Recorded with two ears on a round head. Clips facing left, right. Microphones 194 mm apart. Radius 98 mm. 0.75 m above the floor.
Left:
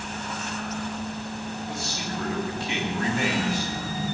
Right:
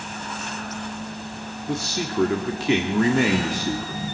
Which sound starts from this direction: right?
A man speaking, at 1.7 s.